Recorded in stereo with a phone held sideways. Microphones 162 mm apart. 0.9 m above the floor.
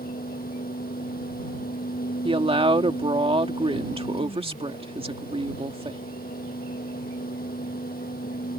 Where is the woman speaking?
35° right (ahead or behind).